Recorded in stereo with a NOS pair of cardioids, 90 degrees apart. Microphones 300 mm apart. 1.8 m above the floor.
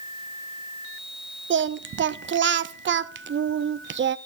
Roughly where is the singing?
Ahead right.